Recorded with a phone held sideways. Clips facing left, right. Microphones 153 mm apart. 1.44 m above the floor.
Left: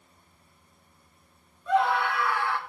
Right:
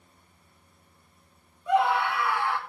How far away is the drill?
No drill in this recording.